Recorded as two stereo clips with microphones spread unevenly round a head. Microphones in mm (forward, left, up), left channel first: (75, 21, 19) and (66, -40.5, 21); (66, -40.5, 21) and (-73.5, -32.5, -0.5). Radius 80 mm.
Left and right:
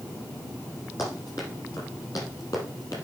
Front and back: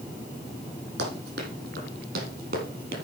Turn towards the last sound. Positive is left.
turn(degrees=140)